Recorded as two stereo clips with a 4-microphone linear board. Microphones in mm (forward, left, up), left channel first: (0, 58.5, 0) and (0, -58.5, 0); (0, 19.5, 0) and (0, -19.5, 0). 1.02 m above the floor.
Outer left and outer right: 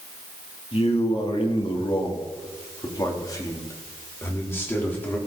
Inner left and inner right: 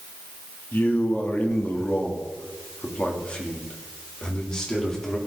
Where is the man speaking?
65° left (ahead or behind), 2.5 m; by 5.2 s 15° left (ahead or behind), 3 m.